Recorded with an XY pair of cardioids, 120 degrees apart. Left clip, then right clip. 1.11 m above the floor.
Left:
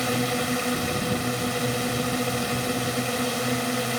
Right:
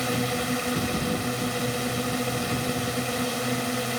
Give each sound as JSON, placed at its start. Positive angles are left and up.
{"t": 0.0, "sound": "a drone", "azimuth_deg": 10}